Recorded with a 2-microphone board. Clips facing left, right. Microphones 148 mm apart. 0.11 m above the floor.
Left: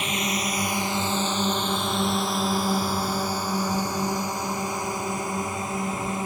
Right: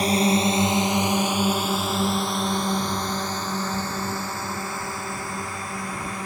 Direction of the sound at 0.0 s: 35° right (ahead or behind).